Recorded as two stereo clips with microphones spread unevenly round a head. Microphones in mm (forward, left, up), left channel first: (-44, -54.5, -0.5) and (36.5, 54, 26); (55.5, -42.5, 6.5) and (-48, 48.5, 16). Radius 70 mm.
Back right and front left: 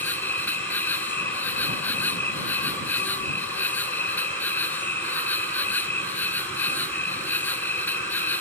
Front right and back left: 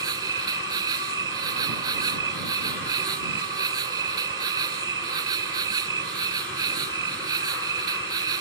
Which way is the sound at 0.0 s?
150° left.